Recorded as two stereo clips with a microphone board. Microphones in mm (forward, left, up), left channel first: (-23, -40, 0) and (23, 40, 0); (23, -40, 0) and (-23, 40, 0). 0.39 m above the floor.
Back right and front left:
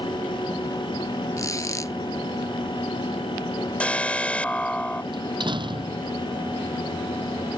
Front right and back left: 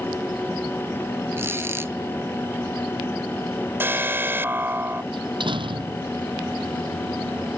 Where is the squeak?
175° right.